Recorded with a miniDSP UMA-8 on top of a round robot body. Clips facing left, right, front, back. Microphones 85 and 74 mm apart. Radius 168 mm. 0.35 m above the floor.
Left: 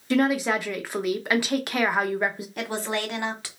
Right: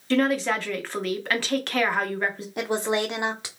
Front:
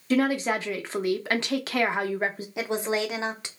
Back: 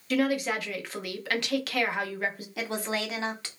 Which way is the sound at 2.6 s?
45° right.